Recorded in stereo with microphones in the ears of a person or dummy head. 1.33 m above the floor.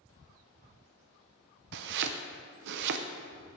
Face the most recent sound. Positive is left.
turn(degrees=-70)  # may be behind; listen again after turning